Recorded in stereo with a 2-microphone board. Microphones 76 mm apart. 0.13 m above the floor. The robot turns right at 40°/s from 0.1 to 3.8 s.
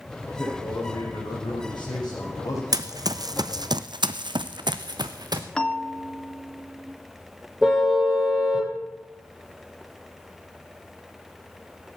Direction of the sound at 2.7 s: 55° right (ahead or behind).